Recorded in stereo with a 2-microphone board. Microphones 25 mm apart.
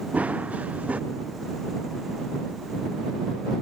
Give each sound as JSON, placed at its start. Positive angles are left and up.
{"t": 0.1, "sound": "running footsteps", "side_deg": -85}